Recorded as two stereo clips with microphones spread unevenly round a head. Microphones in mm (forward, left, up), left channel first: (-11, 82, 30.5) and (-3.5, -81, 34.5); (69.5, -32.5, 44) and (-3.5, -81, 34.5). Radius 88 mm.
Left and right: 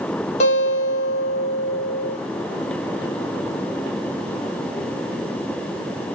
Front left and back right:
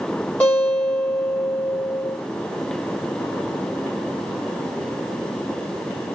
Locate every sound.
0.4 s a guitar: 100° left, 1.0 m